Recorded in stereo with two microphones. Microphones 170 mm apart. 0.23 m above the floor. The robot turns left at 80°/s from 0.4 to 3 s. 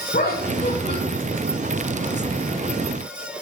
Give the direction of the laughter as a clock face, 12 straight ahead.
9 o'clock.